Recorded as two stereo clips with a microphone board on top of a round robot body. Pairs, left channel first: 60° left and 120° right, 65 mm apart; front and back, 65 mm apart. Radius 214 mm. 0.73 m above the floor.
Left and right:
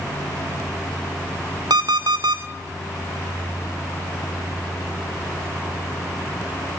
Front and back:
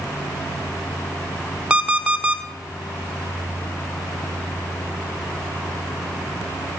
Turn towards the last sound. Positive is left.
turn(degrees=-105)